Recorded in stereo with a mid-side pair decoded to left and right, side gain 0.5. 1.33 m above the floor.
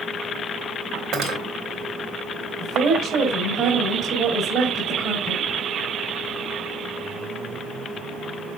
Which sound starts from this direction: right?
Cutlery clinking, at 1.1 s.